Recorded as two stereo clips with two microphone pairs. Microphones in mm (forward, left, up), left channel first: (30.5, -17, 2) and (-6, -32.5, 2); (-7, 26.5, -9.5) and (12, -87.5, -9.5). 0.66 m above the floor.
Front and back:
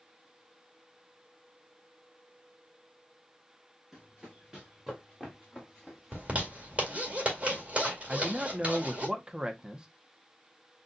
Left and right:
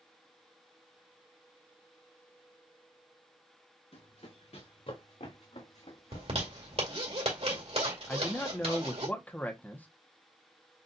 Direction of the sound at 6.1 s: 100° right.